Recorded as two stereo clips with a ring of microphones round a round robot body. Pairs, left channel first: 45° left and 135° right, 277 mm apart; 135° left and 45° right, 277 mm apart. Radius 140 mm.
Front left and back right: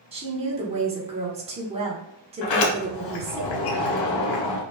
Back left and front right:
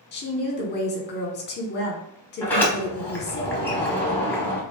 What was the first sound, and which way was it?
A woman speaking, 165° left.